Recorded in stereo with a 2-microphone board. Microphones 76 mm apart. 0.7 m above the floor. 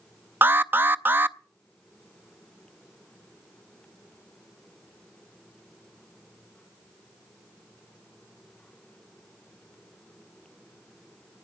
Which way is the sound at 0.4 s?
25° right (ahead or behind).